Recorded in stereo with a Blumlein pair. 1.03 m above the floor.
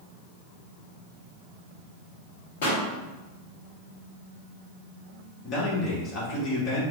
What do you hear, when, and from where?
2.6 s a pop: 55° left, 1.4 m
5.4 s a man speaking: 30° left, 1.7 m